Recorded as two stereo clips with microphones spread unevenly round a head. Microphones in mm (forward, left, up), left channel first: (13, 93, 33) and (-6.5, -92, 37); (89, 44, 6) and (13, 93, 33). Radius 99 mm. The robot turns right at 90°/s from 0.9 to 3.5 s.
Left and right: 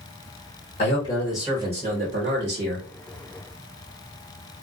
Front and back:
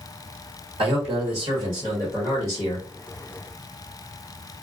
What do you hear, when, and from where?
0.8 s a man speaking: 135° left, 1.3 m; by 2.9 s 50° right, 1.3 m